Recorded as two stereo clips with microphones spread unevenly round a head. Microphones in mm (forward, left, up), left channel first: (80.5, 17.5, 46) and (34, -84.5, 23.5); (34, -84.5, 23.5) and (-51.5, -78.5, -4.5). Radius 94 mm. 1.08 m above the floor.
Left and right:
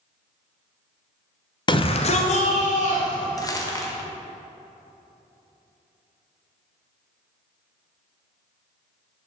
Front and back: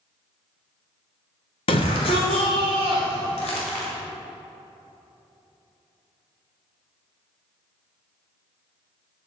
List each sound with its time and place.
1.7 s a shout: 20° left, 0.9 m; by 3.3 s 60° left, 3 m
3.4 s crumpling: 5° left, 1.4 m